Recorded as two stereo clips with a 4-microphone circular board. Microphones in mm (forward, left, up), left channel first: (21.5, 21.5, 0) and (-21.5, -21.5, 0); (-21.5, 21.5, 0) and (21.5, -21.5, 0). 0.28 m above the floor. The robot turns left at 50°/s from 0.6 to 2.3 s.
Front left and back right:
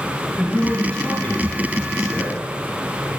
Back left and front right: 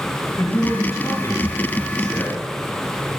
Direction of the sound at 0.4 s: 135° left.